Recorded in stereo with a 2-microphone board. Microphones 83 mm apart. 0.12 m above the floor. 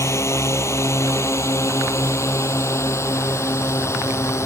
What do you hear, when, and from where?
0.0 s a drone: 35° left (ahead or behind)